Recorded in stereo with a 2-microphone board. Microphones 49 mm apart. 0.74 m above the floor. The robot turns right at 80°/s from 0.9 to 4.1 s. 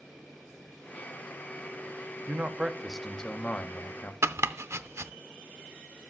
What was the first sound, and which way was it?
A man speaking, 55° right.